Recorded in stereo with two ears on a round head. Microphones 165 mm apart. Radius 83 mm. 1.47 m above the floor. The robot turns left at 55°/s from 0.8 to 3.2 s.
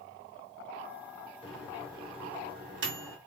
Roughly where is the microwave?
Centre.